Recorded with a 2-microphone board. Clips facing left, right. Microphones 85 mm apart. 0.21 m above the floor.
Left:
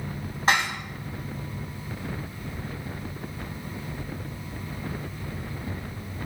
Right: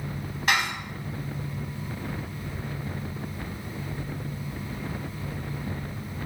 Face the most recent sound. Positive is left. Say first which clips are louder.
# left 2 dB
turn(degrees=35)  # may be behind; listen again after turning